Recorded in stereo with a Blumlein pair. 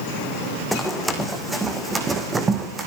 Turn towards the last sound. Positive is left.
turn(degrees=-20)